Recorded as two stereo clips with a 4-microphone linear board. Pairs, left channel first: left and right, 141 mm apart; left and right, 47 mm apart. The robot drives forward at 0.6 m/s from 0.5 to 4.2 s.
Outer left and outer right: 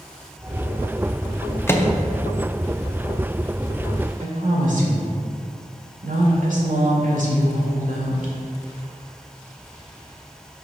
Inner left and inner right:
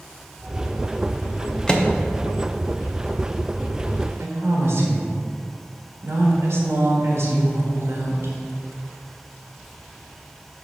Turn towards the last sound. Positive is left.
turn(degrees=-65)  # may be behind; listen again after turning